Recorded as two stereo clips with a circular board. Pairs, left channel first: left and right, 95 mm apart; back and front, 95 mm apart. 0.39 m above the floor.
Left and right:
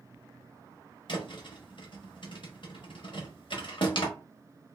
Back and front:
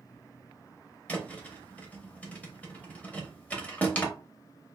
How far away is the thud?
About 0.7 m.